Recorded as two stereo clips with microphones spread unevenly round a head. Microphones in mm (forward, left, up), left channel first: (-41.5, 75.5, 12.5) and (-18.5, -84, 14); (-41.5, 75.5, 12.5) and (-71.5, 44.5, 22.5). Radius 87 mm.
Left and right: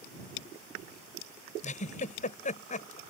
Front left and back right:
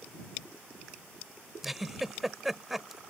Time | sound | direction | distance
1.6 | a giggle | 140° left | ?